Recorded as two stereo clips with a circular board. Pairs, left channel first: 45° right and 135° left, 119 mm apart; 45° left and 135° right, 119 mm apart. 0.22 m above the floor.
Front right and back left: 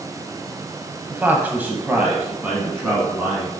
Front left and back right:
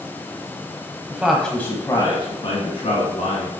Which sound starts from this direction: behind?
A man speaking, at 1.1 s.